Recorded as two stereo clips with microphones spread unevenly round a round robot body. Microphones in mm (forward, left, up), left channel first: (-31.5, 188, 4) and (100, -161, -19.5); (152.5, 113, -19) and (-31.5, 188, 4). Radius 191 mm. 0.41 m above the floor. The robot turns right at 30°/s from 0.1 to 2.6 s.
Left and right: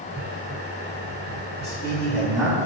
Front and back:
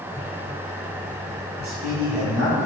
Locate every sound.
1.6 s a man speaking: 175° right, 3 m; by 2.6 s 145° right, 3 m